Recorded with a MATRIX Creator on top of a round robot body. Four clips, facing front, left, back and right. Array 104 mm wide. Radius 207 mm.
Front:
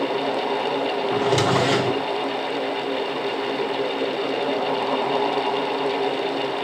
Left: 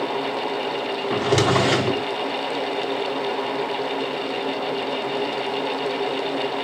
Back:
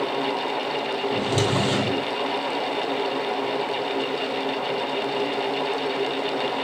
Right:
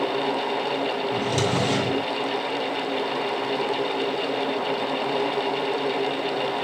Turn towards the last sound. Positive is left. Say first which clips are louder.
# left 9 dB, front 4 dB
turn(degrees=70)